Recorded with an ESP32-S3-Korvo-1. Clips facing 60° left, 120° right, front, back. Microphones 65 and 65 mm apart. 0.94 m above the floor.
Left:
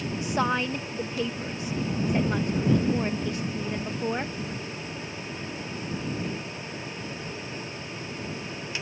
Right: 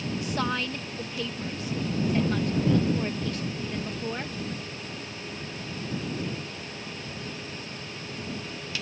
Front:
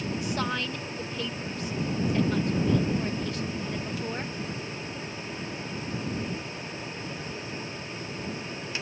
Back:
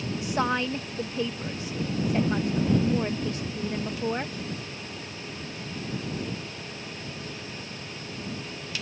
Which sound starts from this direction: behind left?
A woman speaking, at 0.2 s.